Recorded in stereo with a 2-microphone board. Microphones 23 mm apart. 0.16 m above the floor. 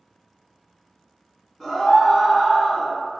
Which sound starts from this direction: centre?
A scream, at 1.6 s.